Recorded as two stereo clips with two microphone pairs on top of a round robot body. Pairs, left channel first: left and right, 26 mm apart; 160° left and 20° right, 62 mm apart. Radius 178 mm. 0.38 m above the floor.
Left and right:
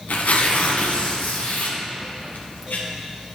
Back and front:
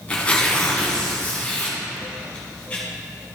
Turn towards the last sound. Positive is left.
turn(degrees=90)